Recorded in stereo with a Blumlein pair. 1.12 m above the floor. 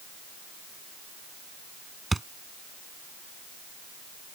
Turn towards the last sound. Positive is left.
turn(degrees=-10)